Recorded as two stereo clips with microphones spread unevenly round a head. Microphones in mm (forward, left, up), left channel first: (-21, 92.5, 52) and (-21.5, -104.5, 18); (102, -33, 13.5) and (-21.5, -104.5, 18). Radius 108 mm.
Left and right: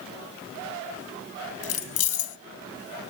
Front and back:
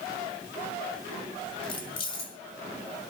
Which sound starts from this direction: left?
Keys jangling, at 1.6 s.